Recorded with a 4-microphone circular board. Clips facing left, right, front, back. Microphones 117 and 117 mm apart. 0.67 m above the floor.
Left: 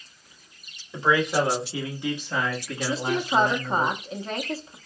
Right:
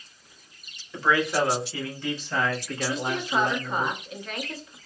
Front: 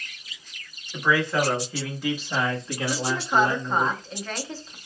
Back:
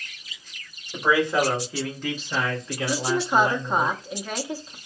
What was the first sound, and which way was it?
A man speaking, 145° left.